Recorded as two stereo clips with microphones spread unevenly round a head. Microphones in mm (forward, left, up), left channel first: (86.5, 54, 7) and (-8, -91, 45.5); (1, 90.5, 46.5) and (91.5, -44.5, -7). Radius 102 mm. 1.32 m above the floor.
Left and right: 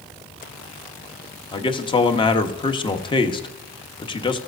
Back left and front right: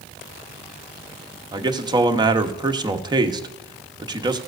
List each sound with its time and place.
1.5 s a man speaking: straight ahead, 1.0 m